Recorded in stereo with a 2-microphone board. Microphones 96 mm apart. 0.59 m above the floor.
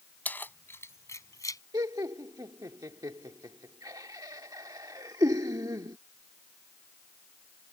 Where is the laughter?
45° right (ahead or behind).